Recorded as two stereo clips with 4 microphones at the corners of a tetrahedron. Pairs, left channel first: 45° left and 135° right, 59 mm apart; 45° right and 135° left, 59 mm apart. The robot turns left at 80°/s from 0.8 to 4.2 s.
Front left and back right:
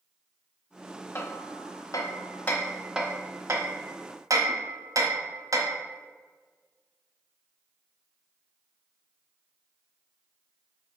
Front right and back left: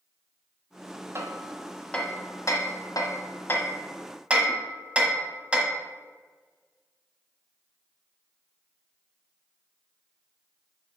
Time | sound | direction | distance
1.1 | hammering | 90° left | 1.2 m